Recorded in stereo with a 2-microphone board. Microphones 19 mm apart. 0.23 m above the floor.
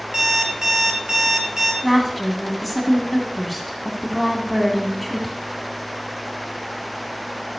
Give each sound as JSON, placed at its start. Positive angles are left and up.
{"t": 0.1, "sound": "an alarm clock", "side_deg": -30, "distance_m": 1.8}
{"t": 1.8, "sound": "a woman speaking", "side_deg": -5, "distance_m": 1.7}